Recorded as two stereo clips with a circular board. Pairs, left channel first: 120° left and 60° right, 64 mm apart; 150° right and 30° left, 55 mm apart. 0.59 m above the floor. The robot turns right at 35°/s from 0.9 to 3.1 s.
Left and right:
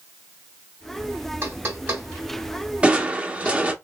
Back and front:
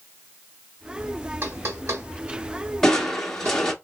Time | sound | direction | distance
1.4 | knocking | 10° right | 2.5 m
2.8 | crushing | 90° right | 0.8 m